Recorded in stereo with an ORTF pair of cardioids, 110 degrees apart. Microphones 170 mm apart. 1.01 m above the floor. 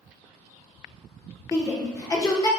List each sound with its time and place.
1.5 s a shout: 20° left, 0.8 m